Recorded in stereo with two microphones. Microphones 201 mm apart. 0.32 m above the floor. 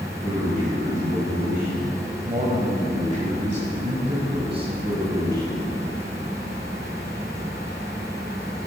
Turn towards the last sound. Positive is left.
turn(degrees=-20)  # may be behind; listen again after turning